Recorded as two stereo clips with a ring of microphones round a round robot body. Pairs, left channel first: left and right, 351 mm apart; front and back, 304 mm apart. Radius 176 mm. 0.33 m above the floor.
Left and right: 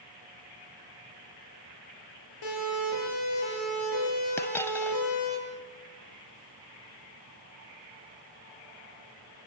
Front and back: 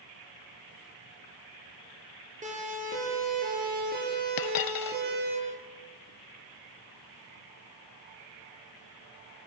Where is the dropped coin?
5° left, 0.6 m.